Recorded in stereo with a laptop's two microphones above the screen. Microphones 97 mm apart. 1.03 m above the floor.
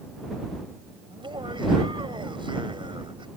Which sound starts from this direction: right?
Laughter, at 1.1 s.